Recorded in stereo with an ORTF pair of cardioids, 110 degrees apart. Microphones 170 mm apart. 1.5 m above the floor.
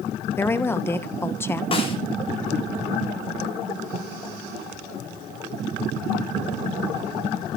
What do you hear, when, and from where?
0.4 s a woman speaking: 15° left, 1.5 m
1.7 s a snare drum: 30° left, 6.5 m